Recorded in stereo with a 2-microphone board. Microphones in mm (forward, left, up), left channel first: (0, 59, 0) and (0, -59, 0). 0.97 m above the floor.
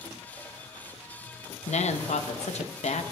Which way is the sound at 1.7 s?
70° left (ahead or behind).